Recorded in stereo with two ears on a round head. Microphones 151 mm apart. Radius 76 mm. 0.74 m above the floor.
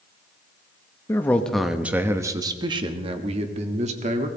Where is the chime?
I don't hear a chime.